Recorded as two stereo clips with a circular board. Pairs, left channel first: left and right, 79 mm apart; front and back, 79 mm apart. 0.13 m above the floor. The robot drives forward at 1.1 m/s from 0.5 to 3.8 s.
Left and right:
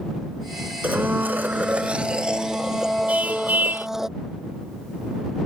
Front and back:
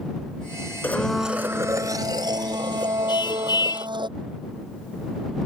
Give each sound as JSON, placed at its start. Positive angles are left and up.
{"t": 0.8, "sound": "a blender", "azimuth_deg": -40}
{"t": 3.1, "sound": "a car horn", "azimuth_deg": -20}